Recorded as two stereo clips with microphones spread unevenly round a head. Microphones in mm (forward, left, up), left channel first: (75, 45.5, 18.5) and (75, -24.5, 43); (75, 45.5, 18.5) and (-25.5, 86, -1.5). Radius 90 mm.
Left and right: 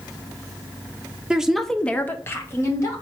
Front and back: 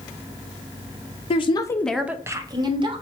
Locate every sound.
1.3 s a woman speaking: 5° left, 0.8 m; by 3.0 s 130° left, 1.4 m